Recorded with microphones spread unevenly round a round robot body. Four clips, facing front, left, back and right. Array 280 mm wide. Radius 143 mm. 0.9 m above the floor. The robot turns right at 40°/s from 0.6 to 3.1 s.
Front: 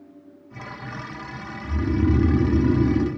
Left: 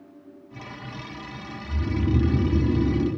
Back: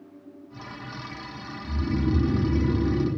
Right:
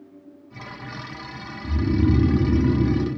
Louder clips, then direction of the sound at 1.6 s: Right 6 dB, front 4 dB; 95° right.